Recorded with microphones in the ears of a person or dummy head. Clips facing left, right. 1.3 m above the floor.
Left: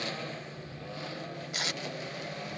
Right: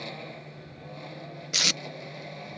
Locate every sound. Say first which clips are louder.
0.0 s a lawn mower: left 2 dB; 10° left (ahead or behind); by 2.6 s 5° left (ahead or behind)
1.5 s tape being pulled: right 6 dB; 40° right (ahead or behind)